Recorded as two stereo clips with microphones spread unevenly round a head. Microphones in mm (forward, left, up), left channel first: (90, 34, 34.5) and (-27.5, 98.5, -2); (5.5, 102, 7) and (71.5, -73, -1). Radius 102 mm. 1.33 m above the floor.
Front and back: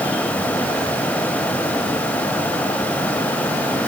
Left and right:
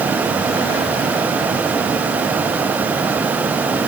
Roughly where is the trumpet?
No trumpet in this recording.